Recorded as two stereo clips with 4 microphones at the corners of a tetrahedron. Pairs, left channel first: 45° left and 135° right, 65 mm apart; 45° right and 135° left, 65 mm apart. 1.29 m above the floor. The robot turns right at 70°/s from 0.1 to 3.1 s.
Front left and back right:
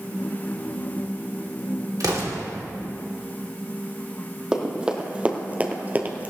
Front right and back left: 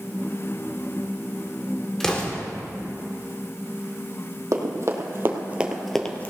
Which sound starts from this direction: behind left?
Running footsteps, at 4.5 s.